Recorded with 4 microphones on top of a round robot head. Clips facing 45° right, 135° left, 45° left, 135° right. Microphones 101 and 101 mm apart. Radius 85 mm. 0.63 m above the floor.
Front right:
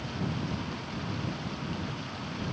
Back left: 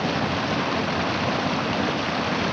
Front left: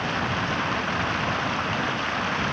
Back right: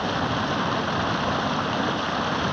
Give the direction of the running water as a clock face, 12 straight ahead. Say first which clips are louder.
Back left 10 dB, back right 2 dB; 7 o'clock.